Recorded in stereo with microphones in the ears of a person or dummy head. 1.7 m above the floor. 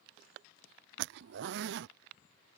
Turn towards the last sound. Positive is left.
turn(degrees=-65)  # may be behind; listen again after turning